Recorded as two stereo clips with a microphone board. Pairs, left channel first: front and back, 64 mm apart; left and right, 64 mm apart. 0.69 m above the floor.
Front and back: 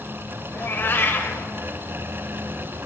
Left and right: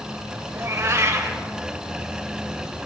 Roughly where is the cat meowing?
Ahead right.